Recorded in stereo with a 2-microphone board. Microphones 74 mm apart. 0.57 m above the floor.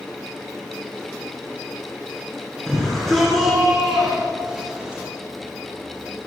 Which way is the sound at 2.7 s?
5° left (ahead or behind).